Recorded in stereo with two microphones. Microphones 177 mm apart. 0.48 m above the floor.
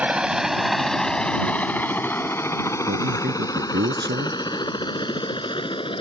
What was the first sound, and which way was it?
A helicopter, 5° right (ahead or behind).